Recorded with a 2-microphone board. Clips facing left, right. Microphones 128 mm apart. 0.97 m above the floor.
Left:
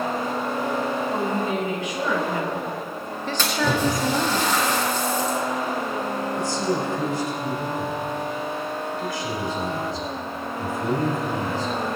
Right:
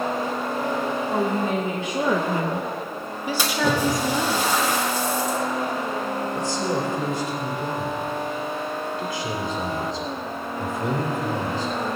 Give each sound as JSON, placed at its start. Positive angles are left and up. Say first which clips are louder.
{"t": 1.1, "sound": "a woman speaking", "louder": "right 1 dB", "side_deg": -25, "distance_m": 2.0}
{"t": 3.4, "sound": "a splash", "louder": "even", "side_deg": -10, "distance_m": 2.5}
{"t": 6.3, "sound": "a man speaking", "louder": "left 1 dB", "side_deg": -20, "distance_m": 3.0}